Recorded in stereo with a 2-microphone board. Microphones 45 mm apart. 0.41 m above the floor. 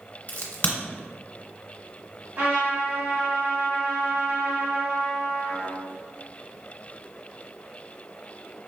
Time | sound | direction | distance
0.3 | a crack | 35° left (ahead or behind) | 1.2 m
2.4 | a trumpet | 50° right (ahead or behind) | 1.6 m